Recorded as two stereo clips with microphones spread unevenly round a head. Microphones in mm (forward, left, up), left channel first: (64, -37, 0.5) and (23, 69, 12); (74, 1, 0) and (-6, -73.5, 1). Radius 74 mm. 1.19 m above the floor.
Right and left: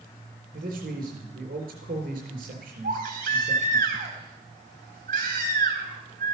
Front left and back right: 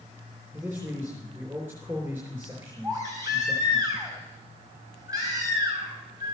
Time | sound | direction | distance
0.5 | a man speaking | 150° left | 4 m
2.8 | a baby crying | 155° left | 3 m